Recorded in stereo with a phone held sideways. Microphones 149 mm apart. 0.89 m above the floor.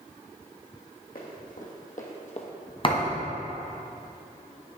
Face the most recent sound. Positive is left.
turn(degrees=35)  # may be behind; listen again after turning